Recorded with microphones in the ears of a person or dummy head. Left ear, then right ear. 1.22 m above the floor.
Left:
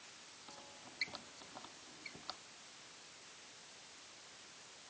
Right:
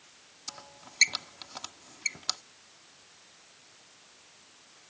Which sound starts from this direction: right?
A squeak, at 0.5 s.